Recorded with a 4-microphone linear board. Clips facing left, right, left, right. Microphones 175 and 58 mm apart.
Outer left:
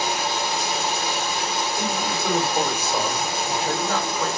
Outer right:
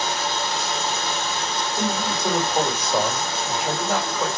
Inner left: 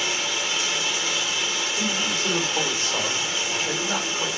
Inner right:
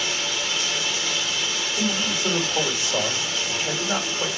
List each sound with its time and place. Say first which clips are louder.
0.0 s running water: outer left 1 dB, inner left 1 dB; 15° left (ahead or behind), 0.8 m
1.8 s a man speaking: outer right 1 dB, inner right 3 dB; 20° right (ahead or behind), 1.9 m